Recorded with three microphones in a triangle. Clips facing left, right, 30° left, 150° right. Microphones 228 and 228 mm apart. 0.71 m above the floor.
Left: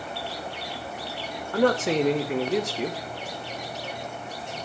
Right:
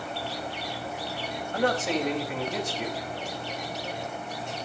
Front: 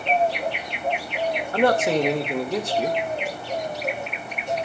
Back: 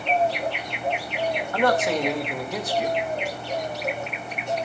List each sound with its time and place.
1.5 s a man speaking: 90° left, 2 m